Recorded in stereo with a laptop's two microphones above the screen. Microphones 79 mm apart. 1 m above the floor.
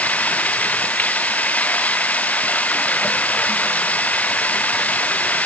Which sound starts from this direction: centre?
Running water, at 0.0 s.